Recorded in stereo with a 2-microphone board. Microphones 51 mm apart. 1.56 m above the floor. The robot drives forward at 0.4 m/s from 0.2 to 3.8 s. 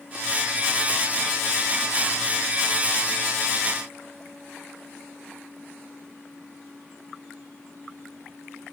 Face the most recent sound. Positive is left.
No sound to turn to.